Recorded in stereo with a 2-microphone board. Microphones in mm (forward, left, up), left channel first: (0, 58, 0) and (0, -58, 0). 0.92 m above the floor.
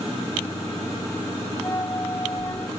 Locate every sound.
1.6 s a flute: 25° left (ahead or behind)